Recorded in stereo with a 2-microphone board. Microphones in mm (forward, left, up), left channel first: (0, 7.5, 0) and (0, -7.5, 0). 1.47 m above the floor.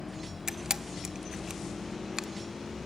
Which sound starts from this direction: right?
A camera shutter, at 0.5 s.